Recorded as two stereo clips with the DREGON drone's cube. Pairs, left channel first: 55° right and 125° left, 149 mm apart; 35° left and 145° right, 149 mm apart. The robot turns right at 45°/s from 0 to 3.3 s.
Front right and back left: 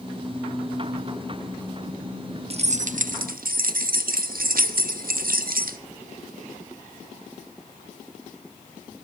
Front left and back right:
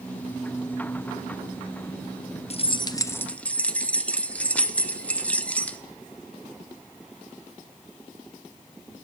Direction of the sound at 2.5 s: 80° left.